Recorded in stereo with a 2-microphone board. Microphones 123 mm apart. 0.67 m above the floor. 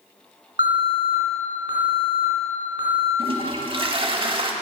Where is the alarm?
50° right (ahead or behind), 2.5 m.